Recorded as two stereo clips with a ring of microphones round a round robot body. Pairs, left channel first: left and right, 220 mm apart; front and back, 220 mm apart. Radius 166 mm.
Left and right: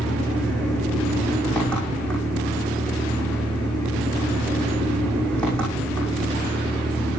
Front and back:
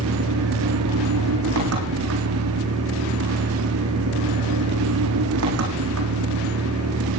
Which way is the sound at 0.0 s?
175° left.